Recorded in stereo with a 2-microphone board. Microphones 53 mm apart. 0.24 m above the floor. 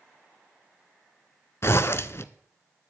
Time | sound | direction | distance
1.6 | a zipper | 55° left (ahead or behind) | 0.7 m